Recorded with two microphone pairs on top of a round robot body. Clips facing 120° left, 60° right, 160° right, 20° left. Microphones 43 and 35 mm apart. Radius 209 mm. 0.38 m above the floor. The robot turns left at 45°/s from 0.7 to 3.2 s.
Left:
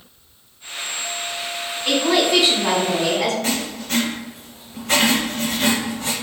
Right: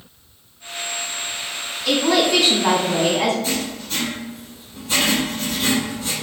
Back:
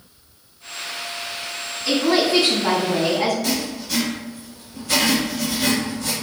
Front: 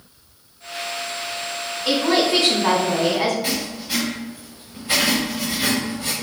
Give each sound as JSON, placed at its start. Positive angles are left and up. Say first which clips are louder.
{"t": 1.9, "sound": "a woman speaking", "louder": "even, even", "azimuth_deg": 60, "distance_m": 1.9}
{"t": 3.4, "sound": "writing", "louder": "left 1 dB, back 1 dB", "azimuth_deg": 90, "distance_m": 0.6}